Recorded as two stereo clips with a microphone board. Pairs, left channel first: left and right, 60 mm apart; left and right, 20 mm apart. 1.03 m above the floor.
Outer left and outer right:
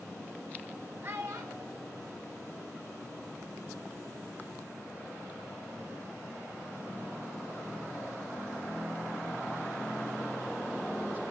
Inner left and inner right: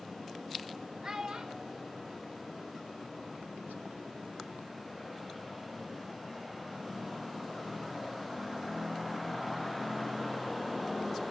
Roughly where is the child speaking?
Right.